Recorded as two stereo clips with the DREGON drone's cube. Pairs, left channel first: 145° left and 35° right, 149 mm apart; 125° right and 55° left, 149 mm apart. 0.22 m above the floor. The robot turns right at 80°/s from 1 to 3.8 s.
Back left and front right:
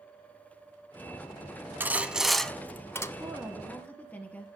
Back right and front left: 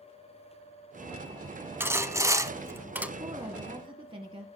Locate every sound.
1.8 s sawing: 15° left, 0.6 m; by 3.1 s 120° left, 0.6 m
3.2 s a woman speaking: 30° left, 1.3 m; by 4.5 s 75° left, 1.3 m